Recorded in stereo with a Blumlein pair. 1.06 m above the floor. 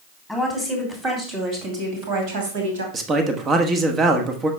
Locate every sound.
0.3 s a woman speaking: 5° right, 3 m; by 2.8 s 60° right, 3 m
2.9 s a man speaking: 25° right, 1.3 m